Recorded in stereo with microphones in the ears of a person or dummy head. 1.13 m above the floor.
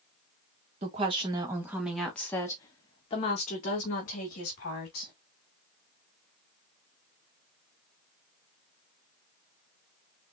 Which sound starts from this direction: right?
A woman speaking, at 0.8 s.